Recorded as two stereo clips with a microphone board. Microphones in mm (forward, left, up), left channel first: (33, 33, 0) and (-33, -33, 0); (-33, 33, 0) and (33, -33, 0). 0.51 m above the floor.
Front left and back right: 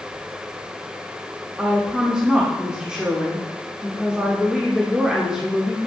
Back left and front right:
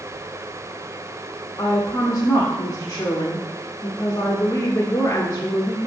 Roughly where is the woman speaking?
Behind left.